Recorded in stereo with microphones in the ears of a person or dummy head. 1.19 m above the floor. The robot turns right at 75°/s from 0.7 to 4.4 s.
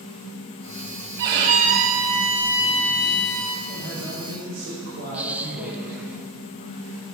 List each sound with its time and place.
1.2 s a violin: 15° right (ahead or behind), 1.1 m; by 3.6 s 15° left (ahead or behind), 1.1 m
3.7 s a man speaking: 125° right, 4.5 m; by 6.1 s 70° right, 4.5 m
5.1 s a woman speaking: 5° right (ahead or behind), 1.1 m